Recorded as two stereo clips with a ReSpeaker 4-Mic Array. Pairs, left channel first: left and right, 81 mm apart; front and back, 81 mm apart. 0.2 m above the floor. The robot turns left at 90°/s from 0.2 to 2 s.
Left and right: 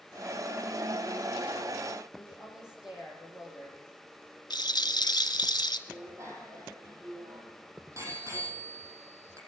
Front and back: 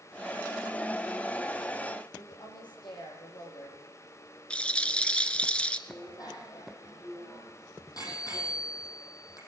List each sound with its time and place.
2.1 s a woman speaking: 10° right, 8.5 m
4.5 s a rattle: 75° left, 1.1 m
5.9 s a bicycle bell: 40° right, 5.5 m